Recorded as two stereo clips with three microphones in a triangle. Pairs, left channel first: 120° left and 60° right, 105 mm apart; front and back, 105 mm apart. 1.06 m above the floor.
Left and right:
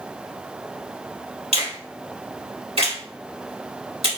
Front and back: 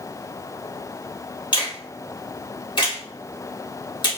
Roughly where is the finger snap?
Ahead right.